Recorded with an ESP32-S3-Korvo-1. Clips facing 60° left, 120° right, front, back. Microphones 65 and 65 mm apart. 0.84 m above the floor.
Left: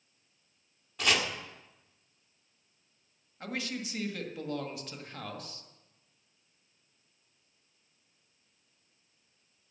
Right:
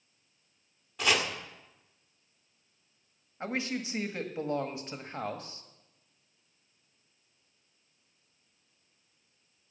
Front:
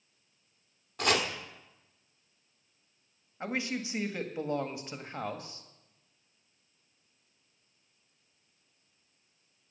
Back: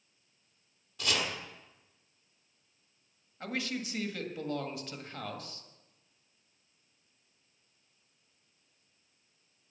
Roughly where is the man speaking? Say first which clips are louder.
Right 3 dB, front 2 dB; ahead right.